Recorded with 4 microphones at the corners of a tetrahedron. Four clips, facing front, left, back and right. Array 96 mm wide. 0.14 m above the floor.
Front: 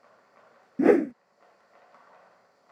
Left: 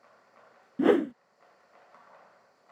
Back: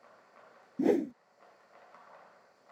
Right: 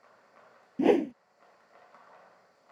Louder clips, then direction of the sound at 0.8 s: Left 1 dB, front 8 dB; 10° left.